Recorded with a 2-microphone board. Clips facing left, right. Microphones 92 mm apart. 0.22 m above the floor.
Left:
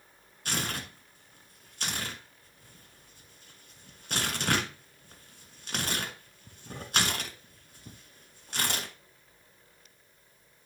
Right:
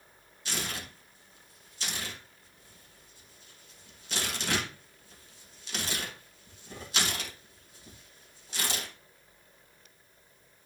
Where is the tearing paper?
55° left (ahead or behind), 1.6 m.